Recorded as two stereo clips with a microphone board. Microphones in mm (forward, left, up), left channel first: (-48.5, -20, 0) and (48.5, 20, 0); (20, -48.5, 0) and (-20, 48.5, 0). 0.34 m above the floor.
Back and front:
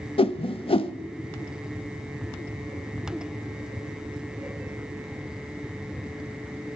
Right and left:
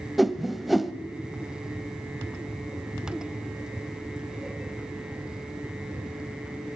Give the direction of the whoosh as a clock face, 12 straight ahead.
5 o'clock.